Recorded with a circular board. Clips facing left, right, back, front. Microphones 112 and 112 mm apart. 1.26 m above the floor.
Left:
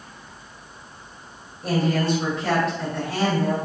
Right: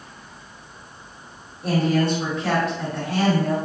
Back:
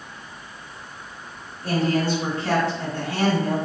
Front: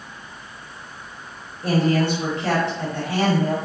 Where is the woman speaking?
Straight ahead, 0.8 m.